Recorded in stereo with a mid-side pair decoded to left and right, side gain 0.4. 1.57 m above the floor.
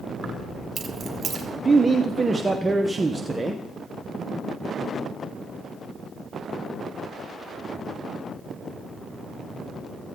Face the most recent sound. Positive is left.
turn(degrees=-20)